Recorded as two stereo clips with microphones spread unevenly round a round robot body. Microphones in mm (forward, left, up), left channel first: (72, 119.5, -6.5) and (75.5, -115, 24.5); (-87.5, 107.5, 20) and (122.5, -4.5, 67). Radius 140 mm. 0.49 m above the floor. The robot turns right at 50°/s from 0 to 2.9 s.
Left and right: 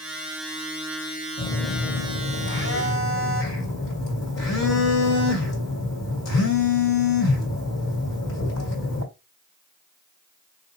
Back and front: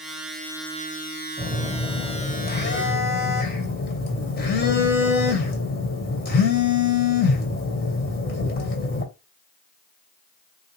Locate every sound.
1.4 s a phone buzzing: 40° left, 2 m; by 9.0 s 115° left, 2 m